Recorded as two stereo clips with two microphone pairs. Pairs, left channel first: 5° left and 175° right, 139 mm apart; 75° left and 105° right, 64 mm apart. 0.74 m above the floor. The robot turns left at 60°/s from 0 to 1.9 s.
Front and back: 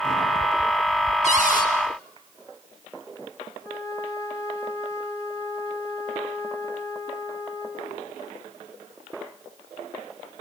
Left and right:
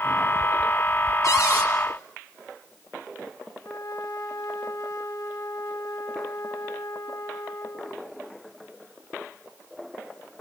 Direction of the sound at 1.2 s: 35° left.